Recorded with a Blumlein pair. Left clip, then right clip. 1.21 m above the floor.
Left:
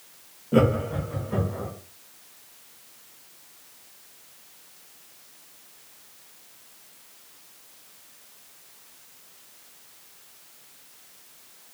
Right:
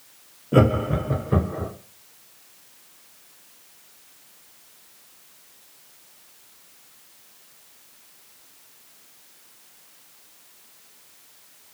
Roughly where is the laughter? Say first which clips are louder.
Right 2 dB; ahead.